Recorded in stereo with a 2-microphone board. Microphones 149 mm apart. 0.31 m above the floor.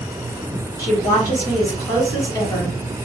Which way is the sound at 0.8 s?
25° left (ahead or behind).